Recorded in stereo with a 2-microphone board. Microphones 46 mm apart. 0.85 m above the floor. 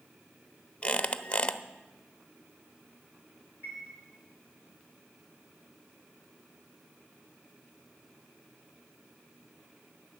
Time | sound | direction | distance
0.8 | a squeak | 25° left (ahead or behind) | 0.6 m
3.6 | a chime | 45° right (ahead or behind) | 4.5 m